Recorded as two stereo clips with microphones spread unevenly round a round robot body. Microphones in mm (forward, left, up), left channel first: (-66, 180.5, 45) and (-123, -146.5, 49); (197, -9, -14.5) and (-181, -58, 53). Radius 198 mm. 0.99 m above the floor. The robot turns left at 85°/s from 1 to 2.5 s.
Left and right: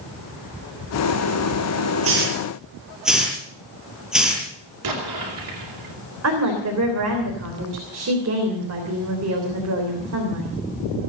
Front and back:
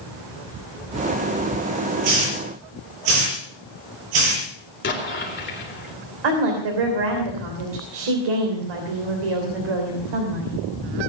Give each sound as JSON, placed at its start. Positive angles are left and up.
{"t": 2.0, "sound": "a hiss", "azimuth_deg": -150, "distance_m": 7.0}
{"t": 4.8, "sound": "an explosion", "azimuth_deg": -55, "distance_m": 3.5}
{"t": 6.2, "sound": "a woman speaking", "azimuth_deg": -145, "distance_m": 3.5}